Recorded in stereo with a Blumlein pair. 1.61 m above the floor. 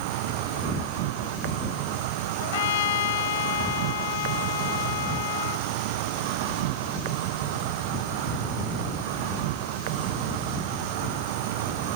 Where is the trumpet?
55° left.